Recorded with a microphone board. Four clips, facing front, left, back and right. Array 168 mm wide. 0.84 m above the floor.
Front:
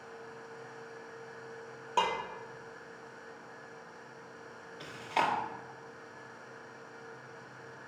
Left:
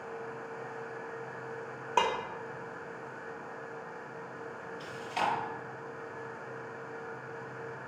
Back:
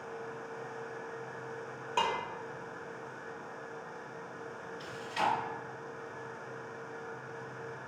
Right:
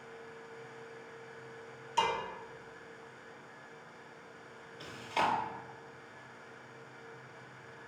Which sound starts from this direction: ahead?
Chewing, at 4.8 s.